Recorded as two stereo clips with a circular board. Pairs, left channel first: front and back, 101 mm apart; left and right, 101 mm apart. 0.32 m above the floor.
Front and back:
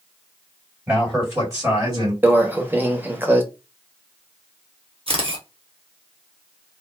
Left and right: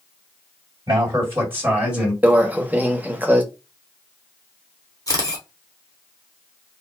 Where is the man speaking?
120° right, 1.9 m; by 2.1 s 175° right, 1.9 m.